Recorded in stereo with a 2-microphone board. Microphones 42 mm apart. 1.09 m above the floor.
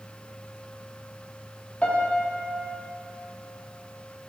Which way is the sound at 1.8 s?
35° left (ahead or behind).